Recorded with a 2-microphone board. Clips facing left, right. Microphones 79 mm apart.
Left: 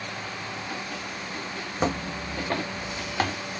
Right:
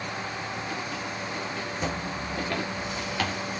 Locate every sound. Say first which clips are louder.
1.8 s footsteps: left 7 dB; 55° left (ahead or behind), 1.0 m; by 3.4 s 30° left (ahead or behind), 2.5 m